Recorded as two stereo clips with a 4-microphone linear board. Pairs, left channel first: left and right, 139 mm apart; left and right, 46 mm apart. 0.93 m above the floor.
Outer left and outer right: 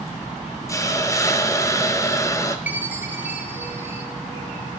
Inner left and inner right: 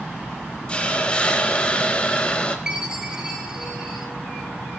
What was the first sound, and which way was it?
A hiss, 20° left (ahead or behind).